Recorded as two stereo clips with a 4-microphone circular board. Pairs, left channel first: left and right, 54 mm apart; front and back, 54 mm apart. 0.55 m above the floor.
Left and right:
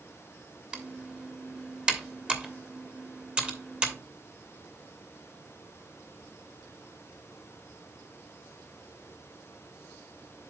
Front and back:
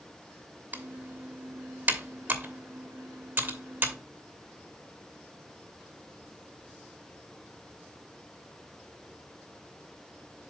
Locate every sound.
0.7 s typing on a keyboard: 150° right, 1.2 m